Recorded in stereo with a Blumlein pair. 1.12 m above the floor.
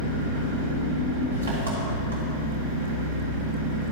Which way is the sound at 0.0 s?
70° right.